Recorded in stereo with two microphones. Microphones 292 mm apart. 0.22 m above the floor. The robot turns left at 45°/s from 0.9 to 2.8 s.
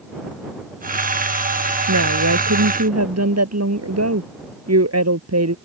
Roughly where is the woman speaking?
Right.